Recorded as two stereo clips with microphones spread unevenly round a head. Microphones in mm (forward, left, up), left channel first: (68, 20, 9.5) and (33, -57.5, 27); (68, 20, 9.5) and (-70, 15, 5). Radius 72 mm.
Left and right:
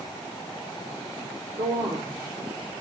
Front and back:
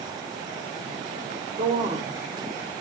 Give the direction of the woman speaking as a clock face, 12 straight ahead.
4 o'clock.